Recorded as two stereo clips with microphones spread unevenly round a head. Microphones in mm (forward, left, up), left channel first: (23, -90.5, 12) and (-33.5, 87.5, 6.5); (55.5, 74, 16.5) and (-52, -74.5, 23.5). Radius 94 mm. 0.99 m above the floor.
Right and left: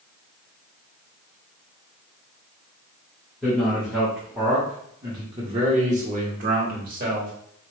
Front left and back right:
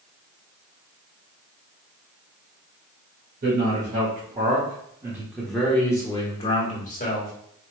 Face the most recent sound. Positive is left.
turn(degrees=80)